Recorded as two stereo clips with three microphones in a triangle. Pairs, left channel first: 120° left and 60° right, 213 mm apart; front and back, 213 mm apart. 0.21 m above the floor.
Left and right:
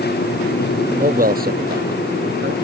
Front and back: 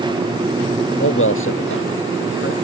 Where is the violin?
I don't hear a violin.